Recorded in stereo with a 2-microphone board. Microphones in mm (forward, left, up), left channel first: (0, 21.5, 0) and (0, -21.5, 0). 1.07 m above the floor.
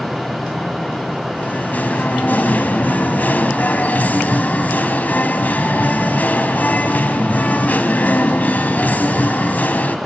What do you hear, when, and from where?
1.4 s singing: 35° left (ahead or behind), 1.3 m